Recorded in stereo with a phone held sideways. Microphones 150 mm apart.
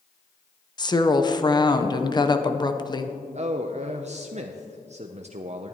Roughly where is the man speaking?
Right.